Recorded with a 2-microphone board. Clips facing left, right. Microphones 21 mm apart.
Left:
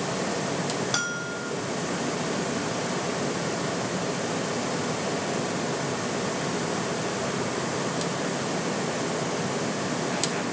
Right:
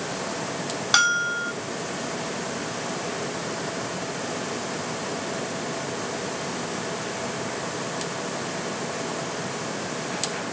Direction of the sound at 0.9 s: 35° right (ahead or behind).